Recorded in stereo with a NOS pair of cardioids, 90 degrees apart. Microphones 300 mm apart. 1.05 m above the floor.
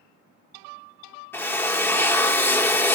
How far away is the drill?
About 0.8 m.